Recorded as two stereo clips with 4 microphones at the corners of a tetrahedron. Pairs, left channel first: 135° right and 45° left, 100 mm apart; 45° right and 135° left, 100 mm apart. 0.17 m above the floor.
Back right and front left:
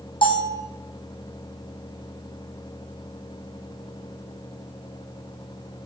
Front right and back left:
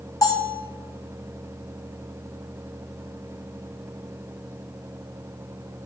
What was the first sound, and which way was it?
A bell, 100° right.